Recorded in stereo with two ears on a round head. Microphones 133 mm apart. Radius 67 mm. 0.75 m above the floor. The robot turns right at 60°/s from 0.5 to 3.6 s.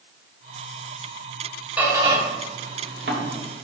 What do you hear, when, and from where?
1.8 s a squeak: 10° right (ahead or behind), 1.4 m; by 3.6 s 55° right (ahead or behind), 1.4 m